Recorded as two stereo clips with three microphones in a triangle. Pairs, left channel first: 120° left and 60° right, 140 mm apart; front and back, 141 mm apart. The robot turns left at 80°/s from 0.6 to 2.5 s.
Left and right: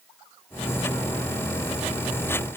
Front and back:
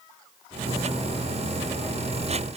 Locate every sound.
Only background noise.